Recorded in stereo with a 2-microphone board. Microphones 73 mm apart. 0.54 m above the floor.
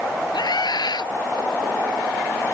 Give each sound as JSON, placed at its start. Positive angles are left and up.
{"t": 0.3, "sound": "a scream", "side_deg": 70}